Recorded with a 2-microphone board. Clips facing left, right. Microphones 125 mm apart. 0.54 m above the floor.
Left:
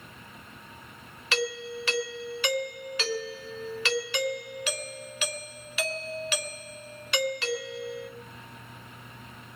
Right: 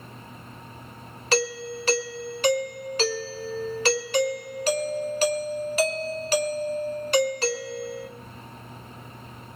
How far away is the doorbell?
About 3 m.